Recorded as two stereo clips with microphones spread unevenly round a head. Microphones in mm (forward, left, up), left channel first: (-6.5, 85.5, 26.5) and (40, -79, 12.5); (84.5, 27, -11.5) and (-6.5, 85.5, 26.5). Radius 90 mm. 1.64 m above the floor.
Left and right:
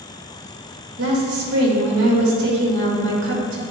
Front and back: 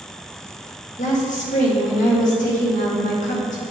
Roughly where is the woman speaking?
Right.